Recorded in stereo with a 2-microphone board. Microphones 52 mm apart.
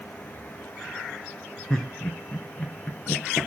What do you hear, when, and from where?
1.7 s laughter: 10° left (ahead or behind), 0.9 m